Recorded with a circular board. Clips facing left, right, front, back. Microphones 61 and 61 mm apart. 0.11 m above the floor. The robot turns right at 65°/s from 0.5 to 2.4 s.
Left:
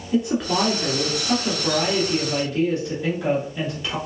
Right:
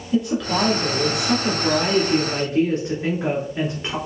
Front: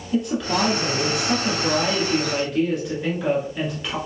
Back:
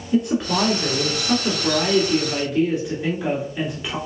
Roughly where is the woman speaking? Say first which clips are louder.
Even, back 2 dB; behind left.